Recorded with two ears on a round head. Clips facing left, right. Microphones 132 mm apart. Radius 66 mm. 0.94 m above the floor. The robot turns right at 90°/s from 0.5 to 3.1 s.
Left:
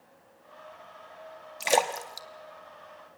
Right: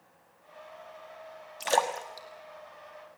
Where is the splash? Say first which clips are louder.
Left 2 dB; 5° left (ahead or behind), 1.3 m; by 2.3 s 65° left (ahead or behind), 1.3 m.